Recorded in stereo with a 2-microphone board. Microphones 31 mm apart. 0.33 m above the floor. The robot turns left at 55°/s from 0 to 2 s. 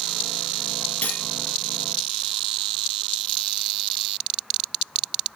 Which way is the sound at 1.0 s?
55° left (ahead or behind).